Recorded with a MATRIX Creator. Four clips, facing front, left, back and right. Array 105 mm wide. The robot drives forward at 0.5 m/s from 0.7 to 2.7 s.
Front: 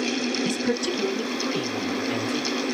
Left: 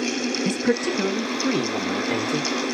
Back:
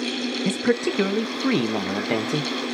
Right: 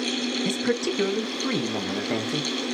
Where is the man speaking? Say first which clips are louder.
Left 3 dB, back 3 dB; 170° left, 0.6 m; by 2.5 s 175° left, 1.3 m.